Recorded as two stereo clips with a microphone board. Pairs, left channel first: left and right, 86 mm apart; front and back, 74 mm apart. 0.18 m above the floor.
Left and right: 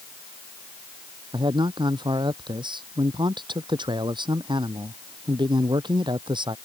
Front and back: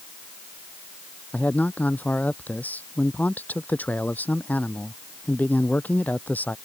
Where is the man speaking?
70° right.